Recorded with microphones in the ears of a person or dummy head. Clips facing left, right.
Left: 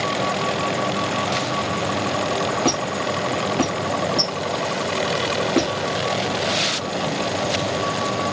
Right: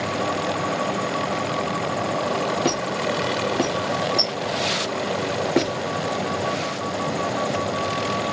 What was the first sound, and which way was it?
A squeak, 5° right (ahead or behind).